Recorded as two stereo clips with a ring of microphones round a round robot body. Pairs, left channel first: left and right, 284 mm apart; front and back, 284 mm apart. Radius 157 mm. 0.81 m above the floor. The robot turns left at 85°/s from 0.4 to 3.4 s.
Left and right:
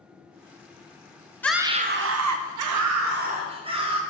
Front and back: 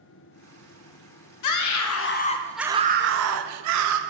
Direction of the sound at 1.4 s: 5° left.